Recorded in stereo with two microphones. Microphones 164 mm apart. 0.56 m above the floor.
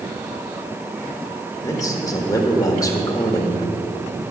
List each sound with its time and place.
1.6 s a man speaking: 20° left (ahead or behind), 1.7 m